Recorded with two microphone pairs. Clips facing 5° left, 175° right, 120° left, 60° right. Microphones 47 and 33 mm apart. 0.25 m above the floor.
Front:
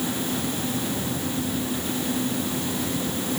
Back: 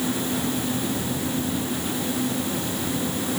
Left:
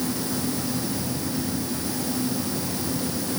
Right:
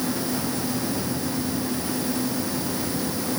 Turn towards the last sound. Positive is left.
No sound to turn to.